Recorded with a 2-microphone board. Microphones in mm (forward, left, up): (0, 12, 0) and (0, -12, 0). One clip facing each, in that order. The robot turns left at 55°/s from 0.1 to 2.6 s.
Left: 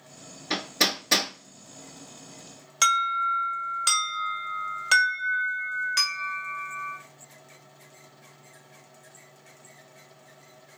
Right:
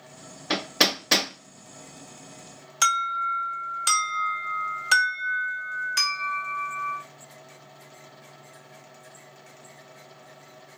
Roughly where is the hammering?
Right.